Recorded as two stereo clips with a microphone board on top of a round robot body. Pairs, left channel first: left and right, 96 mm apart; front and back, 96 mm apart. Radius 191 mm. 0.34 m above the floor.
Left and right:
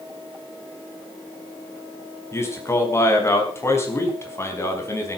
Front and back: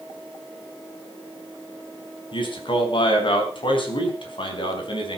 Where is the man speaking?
30° left, 5 m.